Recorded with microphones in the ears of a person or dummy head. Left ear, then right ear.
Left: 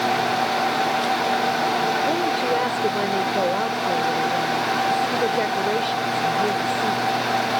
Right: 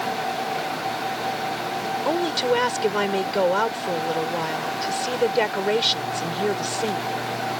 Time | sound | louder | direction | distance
2.0 | a woman speaking | left 1 dB | 45° right (ahead or behind) | ?